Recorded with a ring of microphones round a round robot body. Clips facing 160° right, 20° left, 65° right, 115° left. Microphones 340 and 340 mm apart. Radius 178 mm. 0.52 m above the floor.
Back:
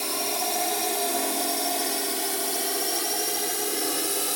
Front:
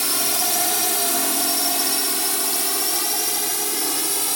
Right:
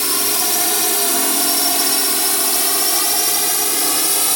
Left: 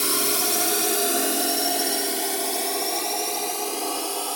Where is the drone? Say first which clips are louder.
Front 1 dB, right 1 dB; 15° left; by 4.4 s 45° right.